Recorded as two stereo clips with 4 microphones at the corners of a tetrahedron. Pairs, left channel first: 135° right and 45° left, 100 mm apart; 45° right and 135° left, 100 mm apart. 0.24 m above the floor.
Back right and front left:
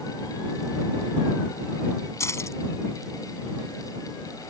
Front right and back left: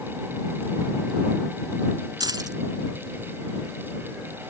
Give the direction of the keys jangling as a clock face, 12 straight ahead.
6 o'clock.